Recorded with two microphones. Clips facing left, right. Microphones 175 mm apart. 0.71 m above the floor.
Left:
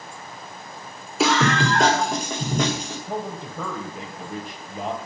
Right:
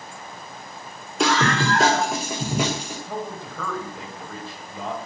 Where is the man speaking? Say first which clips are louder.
Left 3 dB; 20° left (ahead or behind), 3 m.